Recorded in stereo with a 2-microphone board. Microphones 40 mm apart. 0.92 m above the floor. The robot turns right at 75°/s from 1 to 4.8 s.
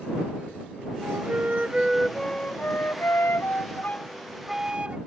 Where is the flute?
75° right; by 5.0 s 150° right.